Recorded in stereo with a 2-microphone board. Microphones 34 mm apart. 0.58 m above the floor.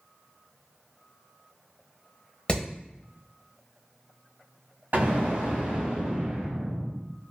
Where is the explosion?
70° right (ahead or behind), 1.8 m.